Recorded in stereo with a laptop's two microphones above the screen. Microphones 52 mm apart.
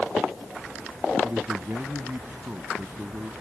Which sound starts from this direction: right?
A man speaking, at 1.2 s.